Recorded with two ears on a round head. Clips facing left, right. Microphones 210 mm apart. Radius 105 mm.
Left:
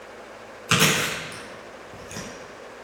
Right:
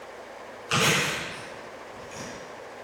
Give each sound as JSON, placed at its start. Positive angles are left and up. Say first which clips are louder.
{"t": 0.7, "sound": "chewing", "louder": "left 3 dB", "side_deg": 75, "distance_m": 5.5}